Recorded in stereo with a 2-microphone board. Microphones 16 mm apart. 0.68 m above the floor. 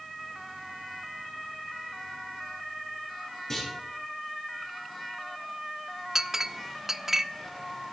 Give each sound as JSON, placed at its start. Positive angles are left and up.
{"t": 3.5, "sound": "a clunk", "side_deg": 30, "distance_m": 7.0}
{"t": 6.2, "sound": "a clink", "side_deg": -25, "distance_m": 0.6}